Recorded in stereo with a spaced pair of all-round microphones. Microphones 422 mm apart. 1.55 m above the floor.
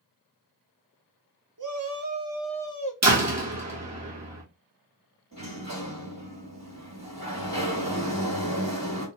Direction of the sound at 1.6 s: 50° right (ahead or behind).